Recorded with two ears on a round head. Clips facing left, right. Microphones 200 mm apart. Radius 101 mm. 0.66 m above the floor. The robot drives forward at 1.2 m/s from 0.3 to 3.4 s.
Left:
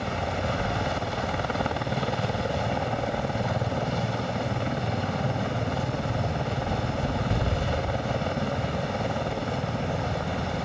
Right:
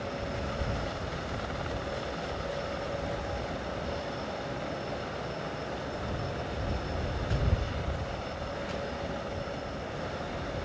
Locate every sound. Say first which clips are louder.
0.0 s a helicopter: left 5 dB; 70° left (ahead or behind); by 10.7 s 65° left (ahead or behind)